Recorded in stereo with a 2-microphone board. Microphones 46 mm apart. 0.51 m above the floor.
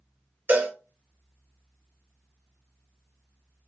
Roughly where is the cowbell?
Right.